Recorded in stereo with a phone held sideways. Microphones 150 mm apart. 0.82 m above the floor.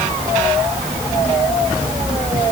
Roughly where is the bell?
I don't hear a bell.